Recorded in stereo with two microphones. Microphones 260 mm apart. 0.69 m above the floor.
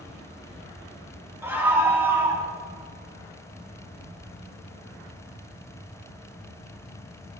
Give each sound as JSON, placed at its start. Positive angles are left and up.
{"t": 1.4, "sound": "a scream", "side_deg": -10, "distance_m": 5.0}